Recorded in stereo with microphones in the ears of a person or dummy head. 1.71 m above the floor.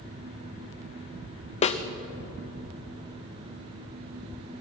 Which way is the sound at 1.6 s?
35° left (ahead or behind).